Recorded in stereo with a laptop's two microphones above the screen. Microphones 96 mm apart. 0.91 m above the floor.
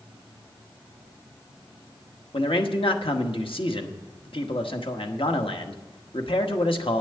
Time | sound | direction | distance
2.3 | a man speaking | 70° left (ahead or behind) | 1.1 m